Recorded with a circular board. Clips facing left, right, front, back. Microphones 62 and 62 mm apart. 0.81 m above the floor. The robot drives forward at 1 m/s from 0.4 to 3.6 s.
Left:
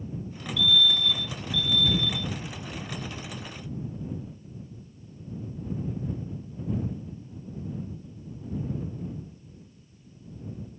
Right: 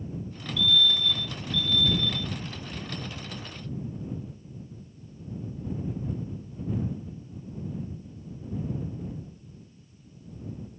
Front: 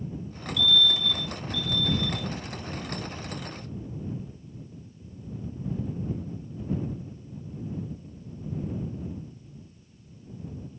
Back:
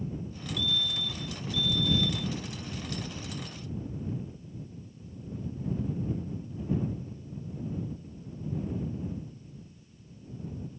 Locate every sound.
0.6 s a fire alarm: 170° right; by 2.3 s straight behind